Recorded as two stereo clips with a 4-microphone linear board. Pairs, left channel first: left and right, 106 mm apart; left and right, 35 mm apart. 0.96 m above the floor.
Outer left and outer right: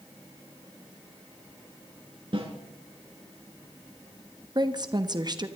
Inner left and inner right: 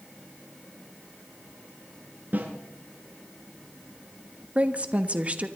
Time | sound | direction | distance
2.3 | a snare drum | 50° right (ahead or behind) | 4 m
4.5 | a woman speaking | 40° right (ahead or behind) | 1.2 m